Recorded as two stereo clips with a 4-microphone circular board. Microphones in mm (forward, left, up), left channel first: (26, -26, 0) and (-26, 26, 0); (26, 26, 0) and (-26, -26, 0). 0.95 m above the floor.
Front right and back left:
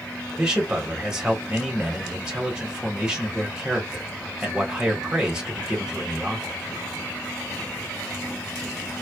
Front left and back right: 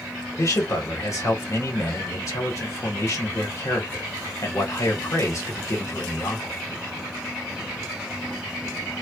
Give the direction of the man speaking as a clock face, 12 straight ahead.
10 o'clock.